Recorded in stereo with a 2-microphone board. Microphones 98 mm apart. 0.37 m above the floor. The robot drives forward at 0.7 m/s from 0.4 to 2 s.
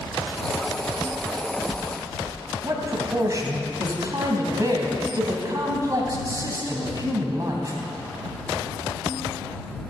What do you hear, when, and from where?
1.1 s footsteps: 5° right (ahead or behind), 1.7 m; by 2.4 s 5° left (ahead or behind), 2.5 m
2.6 s a man speaking: 35° right (ahead or behind), 3 m